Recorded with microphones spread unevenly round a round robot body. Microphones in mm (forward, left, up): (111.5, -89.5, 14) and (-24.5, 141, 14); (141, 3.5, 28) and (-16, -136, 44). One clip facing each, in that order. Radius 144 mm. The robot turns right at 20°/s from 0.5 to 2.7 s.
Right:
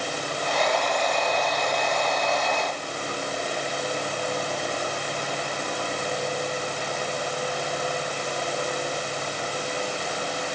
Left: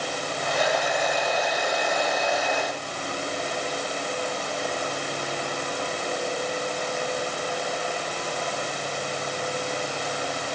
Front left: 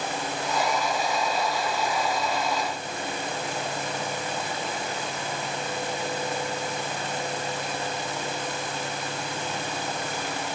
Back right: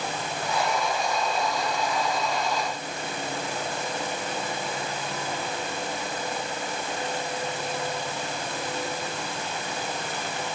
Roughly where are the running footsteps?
I don't hear running footsteps.